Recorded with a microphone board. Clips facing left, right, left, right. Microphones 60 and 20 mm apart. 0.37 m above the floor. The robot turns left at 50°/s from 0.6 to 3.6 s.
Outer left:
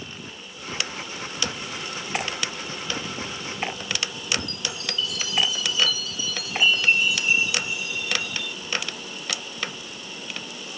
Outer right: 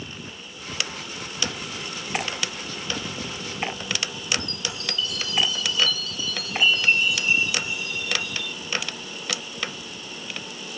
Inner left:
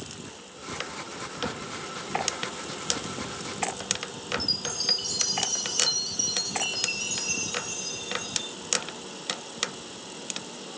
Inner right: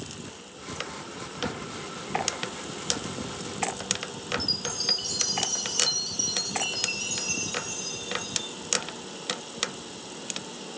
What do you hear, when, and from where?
4.4 s a chime: centre (ahead or behind)